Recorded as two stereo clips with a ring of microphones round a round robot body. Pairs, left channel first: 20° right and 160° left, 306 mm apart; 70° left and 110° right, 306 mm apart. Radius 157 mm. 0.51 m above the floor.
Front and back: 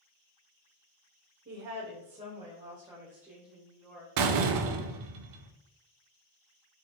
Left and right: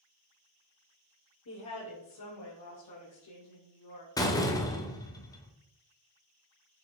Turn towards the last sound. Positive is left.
turn(degrees=145)